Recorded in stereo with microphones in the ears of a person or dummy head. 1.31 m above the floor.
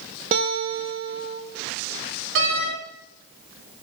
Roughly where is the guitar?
Right.